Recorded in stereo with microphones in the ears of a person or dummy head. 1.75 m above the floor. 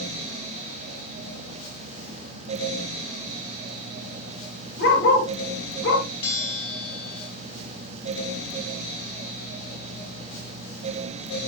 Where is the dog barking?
70° left (ahead or behind), 7.5 m.